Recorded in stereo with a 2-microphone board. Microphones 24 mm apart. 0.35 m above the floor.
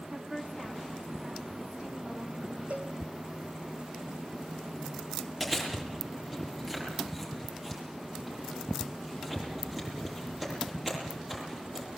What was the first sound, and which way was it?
A woman speaking, 25° right (ahead or behind).